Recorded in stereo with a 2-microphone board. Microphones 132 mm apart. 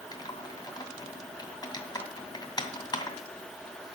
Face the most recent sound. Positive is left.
turn(degrees=30)  # may be behind; listen again after turning